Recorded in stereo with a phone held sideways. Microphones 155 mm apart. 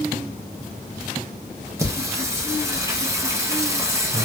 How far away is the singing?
About 0.6 m.